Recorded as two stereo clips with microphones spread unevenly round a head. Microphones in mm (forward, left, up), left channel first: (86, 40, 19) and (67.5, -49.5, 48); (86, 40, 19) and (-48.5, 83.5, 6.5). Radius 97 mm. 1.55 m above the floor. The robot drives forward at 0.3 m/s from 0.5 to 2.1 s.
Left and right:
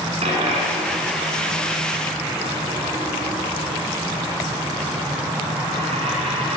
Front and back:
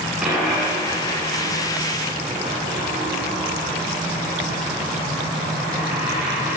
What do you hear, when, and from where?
0.2 s a dropped coin: 110° right, 8 m; by 6.6 s 115° right, 8 m